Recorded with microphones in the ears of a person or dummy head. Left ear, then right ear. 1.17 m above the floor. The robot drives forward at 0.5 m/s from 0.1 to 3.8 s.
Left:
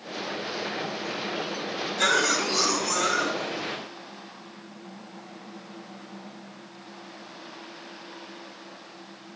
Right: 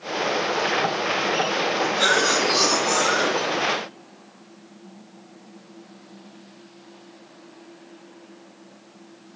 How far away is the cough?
About 1.9 m.